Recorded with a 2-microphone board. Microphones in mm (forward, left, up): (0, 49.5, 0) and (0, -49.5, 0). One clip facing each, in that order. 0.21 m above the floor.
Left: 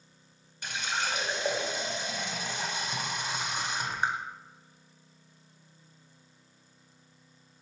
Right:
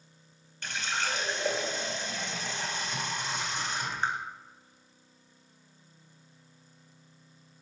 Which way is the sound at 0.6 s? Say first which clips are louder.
Even; 15° left (ahead or behind).